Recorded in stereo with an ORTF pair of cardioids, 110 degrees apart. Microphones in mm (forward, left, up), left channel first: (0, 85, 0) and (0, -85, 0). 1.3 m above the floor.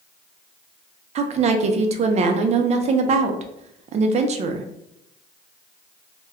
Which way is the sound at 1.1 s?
45° right.